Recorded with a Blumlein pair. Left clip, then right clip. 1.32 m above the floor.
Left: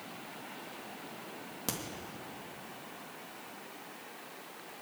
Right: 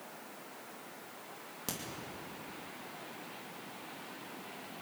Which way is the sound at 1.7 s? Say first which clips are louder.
Left 3 dB; 10° left.